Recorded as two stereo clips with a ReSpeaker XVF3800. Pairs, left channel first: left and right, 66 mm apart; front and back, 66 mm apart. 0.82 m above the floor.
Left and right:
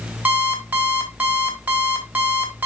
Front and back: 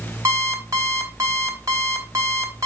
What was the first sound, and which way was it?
An alarm clock, 150° right.